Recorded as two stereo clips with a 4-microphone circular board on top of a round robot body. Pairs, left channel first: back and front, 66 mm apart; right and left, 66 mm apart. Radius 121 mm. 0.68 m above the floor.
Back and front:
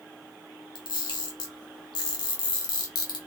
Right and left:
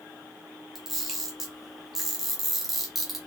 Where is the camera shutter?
Straight behind, 0.5 m.